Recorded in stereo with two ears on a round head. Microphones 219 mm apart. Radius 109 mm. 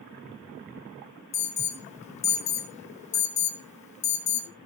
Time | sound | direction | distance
1.3 | an alarm | 30° left (ahead or behind) | 1.2 m